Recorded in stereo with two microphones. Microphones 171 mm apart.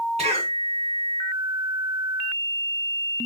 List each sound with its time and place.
0.2 s a cough: 40° right (ahead or behind), 2 m